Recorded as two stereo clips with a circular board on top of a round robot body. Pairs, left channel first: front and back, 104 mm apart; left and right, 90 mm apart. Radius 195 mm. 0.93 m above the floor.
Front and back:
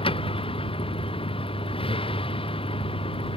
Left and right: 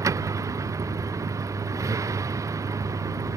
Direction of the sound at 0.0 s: 35° right.